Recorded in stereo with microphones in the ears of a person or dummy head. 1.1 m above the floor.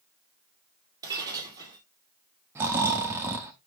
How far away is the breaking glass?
About 3 m.